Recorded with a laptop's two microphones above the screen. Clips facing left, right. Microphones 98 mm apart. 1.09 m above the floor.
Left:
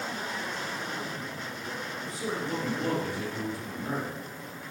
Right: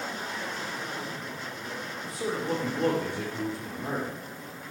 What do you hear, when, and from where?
2.0 s a man speaking: 70° right (ahead or behind), 3 m